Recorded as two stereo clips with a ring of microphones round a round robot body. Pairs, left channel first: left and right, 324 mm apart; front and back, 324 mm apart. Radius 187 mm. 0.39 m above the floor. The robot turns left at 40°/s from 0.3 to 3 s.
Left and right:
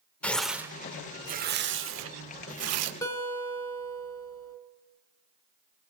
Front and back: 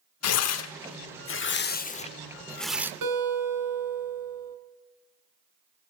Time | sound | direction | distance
0.2 | tearing paper | 5° left | 0.7 m
3.0 | a guitar | 165° left | 3 m